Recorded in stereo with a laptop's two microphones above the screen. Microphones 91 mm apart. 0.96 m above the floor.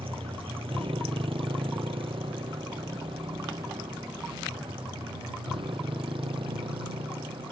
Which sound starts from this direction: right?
A motorcycle, at 0.0 s.